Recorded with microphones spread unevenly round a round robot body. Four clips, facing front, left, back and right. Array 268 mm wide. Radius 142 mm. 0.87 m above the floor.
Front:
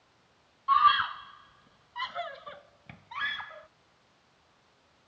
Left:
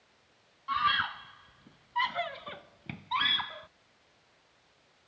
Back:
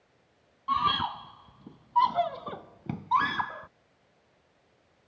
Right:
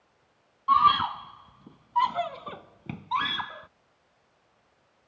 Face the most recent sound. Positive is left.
turn(degrees=-165)